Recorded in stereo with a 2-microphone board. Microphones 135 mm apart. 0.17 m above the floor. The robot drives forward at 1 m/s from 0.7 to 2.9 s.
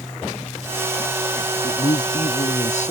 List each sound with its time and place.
1.6 s a man speaking: 50° left (ahead or behind); by 2.9 s 60° left (ahead or behind)